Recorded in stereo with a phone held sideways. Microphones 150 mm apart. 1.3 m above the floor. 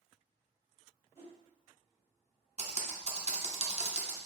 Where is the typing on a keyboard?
50° right (ahead or behind), 0.7 m.